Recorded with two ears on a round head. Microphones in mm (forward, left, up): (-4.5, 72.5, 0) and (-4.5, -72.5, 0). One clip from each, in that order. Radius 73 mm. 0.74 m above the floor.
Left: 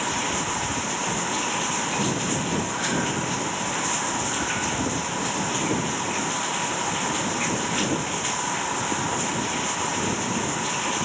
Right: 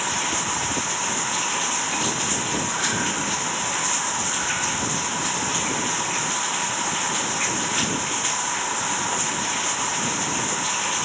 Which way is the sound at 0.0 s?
40° right (ahead or behind).